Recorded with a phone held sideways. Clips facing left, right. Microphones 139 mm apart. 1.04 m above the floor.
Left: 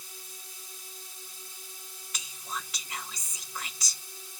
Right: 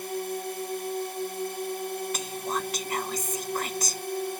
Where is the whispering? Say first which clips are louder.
Right 10 dB; 50° right (ahead or behind).